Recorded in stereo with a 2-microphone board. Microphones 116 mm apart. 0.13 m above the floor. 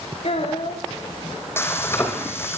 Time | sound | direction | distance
0.2 | a child speaking | 60° left (ahead or behind) | 6.5 m
1.6 | frying | 20° left (ahead or behind) | 5.5 m